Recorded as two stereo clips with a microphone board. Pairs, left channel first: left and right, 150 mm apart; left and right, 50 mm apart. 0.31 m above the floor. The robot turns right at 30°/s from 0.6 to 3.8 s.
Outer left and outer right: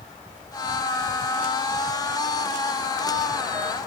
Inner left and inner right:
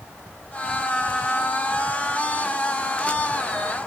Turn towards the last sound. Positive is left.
No sound to turn to.